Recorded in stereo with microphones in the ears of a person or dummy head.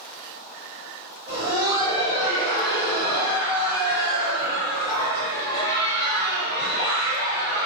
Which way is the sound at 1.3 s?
30° right (ahead or behind).